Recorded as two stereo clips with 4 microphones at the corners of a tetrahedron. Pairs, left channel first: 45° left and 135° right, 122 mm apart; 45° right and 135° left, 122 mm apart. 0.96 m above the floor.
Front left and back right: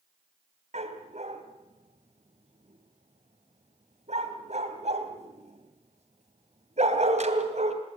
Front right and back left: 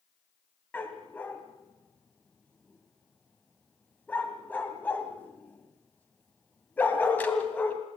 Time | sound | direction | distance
0.7 | a dog barking | 120° right | 2 m